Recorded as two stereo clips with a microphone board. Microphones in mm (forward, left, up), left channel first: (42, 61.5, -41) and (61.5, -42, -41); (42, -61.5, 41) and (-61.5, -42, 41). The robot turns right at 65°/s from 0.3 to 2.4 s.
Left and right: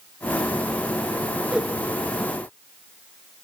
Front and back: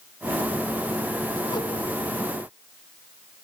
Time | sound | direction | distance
1.5 | a whoosh | 5° right | 1.4 m